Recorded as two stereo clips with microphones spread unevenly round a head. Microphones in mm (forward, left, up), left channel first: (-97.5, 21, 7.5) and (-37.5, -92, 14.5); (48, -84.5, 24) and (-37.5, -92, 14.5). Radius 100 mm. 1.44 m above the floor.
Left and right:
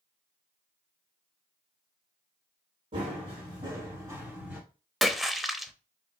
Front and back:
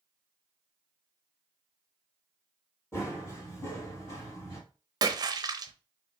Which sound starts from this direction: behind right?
A splash, at 5.0 s.